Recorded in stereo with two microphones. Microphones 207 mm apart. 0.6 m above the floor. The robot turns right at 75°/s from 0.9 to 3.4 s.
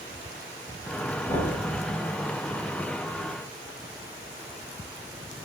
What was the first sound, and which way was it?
Knocking, 10° left (ahead or behind).